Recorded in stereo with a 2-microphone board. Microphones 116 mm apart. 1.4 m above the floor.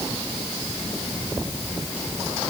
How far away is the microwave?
I don't hear a microwave.